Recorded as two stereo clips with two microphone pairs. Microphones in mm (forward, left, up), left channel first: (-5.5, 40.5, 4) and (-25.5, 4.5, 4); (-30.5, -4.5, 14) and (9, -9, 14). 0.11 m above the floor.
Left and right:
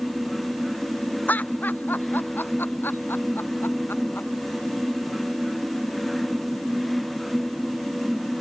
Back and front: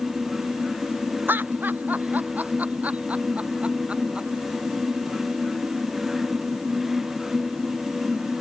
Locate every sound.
1.3 s laughter: 20° left; by 4.3 s 60° left